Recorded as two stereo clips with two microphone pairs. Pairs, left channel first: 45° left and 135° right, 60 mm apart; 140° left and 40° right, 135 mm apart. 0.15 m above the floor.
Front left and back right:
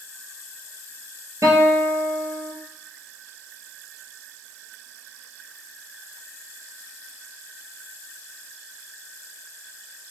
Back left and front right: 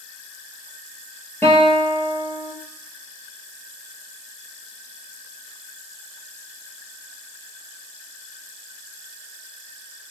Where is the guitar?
145° right, 0.9 m.